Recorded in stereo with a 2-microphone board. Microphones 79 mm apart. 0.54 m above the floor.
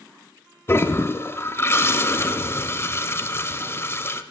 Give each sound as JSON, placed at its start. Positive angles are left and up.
{"t": 0.7, "sound": "a toilet flushing", "side_deg": 30, "distance_m": 0.7}